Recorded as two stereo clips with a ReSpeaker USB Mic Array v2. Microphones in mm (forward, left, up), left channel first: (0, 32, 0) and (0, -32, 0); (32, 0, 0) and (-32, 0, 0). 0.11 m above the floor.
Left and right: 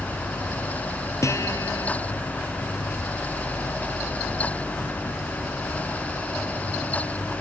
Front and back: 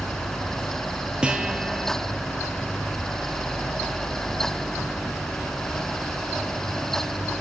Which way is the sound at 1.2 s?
110° left.